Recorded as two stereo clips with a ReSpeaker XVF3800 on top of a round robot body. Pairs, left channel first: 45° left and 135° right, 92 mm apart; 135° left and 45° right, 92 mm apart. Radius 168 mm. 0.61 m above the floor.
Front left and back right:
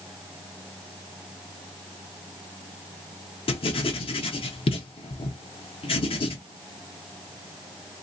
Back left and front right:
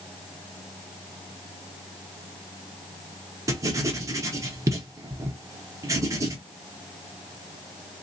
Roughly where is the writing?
Ahead.